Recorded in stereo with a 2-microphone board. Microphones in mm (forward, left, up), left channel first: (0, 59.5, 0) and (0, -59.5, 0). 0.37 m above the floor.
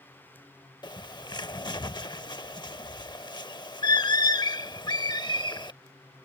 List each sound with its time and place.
0.8 s a bird: 40° left (ahead or behind)